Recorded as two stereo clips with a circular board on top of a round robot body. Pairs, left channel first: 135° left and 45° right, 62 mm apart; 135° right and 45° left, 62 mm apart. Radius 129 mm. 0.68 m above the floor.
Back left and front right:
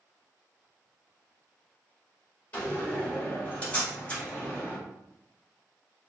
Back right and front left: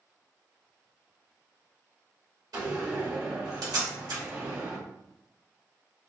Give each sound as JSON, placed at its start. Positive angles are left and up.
{"t": 2.5, "sound": "a door slam", "azimuth_deg": 70, "distance_m": 1.7}